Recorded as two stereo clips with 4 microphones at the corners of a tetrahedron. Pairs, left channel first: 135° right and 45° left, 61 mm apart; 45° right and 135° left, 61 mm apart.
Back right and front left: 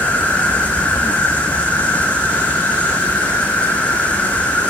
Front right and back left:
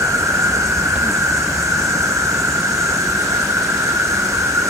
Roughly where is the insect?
Behind.